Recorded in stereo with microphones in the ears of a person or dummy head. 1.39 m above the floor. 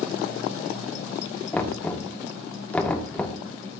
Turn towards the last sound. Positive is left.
turn(degrees=10)  # may be behind; listen again after turning